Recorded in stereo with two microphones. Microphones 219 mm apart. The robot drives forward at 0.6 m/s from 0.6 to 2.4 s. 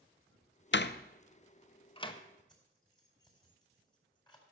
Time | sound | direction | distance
0.7 | a door slam | 55° left (ahead or behind) | 0.5 m
2.5 | keys jangling | 20° left (ahead or behind) | 4 m